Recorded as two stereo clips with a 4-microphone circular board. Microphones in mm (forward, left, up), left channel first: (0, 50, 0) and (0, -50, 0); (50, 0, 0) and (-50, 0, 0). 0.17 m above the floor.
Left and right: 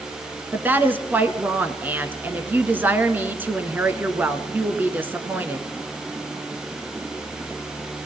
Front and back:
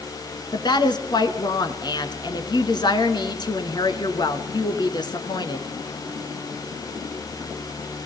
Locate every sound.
0.5 s a woman speaking: 25° right, 1.8 m